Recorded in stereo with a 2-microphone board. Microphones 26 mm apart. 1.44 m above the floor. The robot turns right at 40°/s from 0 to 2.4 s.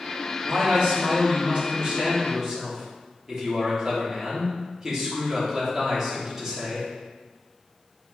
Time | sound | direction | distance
0.4 | a man speaking | 95° right | 2.5 m